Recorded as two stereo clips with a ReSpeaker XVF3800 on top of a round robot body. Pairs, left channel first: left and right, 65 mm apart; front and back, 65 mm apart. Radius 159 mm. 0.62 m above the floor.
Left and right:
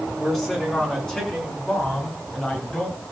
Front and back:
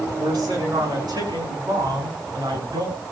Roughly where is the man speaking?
Behind.